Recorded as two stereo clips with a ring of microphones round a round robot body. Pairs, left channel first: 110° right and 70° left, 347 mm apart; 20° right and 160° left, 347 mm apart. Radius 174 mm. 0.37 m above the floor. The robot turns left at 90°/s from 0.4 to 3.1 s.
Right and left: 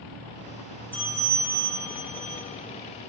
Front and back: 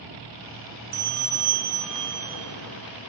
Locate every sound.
0.9 s a bell: 165° left, 3.5 m; by 2.4 s 30° left, 3.5 m